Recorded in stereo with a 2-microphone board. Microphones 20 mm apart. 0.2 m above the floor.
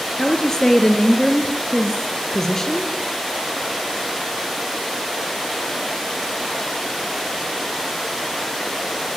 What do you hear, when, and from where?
0.2 s a woman speaking: 30° left (ahead or behind), 4 m